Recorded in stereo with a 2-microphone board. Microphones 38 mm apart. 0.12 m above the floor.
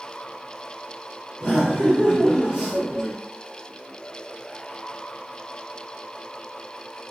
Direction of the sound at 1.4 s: 10° right (ahead or behind).